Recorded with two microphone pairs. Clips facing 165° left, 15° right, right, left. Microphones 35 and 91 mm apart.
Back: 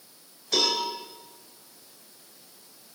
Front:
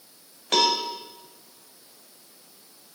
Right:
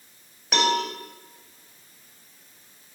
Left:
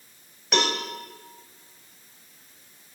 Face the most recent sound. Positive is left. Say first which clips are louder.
# front 4 dB, right 3 dB
turn(degrees=-5)